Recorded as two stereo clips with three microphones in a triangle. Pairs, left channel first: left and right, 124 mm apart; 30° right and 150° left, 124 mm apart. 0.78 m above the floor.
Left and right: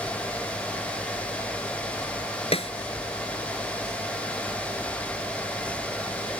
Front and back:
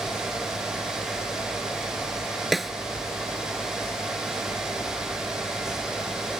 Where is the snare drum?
60° left.